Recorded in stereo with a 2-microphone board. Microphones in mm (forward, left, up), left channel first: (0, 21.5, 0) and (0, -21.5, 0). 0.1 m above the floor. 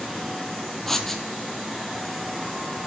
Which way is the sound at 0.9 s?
5° left (ahead or behind).